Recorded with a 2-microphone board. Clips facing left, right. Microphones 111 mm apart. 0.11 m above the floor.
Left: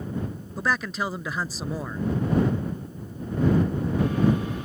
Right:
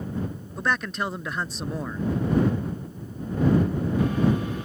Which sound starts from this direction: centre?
A man speaking, at 0.6 s.